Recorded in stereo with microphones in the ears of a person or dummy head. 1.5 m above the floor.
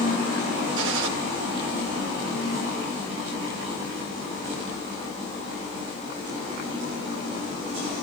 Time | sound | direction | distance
0.8 | a gunshot | 75° right (ahead or behind) | 2 m